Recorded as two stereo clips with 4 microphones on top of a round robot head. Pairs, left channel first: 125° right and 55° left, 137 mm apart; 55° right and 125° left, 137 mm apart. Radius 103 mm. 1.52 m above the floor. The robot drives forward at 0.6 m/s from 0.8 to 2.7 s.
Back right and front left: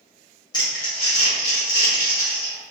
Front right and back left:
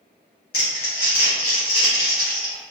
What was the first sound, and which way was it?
Crumpling, 70° right.